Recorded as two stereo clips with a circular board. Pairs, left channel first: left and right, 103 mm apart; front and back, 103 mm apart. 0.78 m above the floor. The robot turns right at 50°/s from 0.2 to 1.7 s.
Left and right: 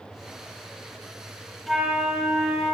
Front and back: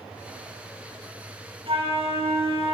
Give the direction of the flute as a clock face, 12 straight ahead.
6 o'clock.